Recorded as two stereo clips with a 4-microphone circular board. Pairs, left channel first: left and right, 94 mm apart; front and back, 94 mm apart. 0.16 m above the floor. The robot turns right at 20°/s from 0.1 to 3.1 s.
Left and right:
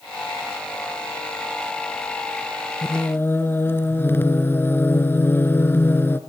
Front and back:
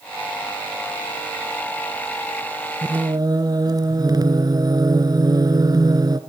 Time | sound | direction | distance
2.8 | singing | 145° left | 1.5 m